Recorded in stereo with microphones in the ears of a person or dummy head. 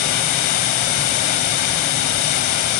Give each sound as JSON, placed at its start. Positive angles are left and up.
{"t": 0.0, "sound": "running water", "side_deg": 50, "distance_m": 1.5}